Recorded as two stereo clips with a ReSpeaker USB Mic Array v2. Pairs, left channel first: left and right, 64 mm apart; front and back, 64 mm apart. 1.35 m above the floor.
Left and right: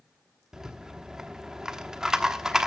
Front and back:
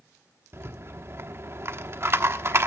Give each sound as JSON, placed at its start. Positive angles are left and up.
{"t": 0.5, "sound": "a rattle", "azimuth_deg": -165, "distance_m": 1.0}